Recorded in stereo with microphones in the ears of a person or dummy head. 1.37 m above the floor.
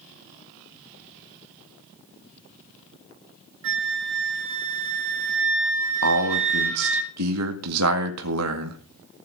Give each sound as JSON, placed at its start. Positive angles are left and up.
{"t": 3.6, "sound": "a flute", "side_deg": -70, "distance_m": 2.5}
{"t": 6.0, "sound": "a man speaking", "side_deg": -80, "distance_m": 1.7}